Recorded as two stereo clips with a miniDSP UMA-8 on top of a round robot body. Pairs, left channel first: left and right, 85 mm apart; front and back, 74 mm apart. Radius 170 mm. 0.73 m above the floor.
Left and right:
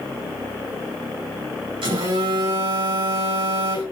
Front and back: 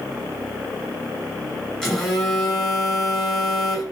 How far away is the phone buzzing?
About 5.5 m.